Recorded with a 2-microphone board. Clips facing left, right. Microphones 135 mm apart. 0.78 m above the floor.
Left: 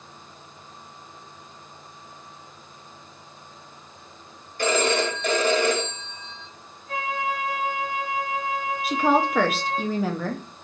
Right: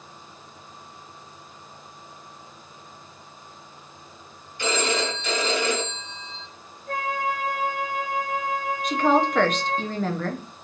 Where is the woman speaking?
5° left (ahead or behind), 0.5 m.